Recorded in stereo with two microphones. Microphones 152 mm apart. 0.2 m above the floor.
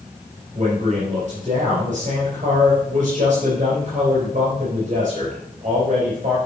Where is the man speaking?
50° right (ahead or behind), 5 m.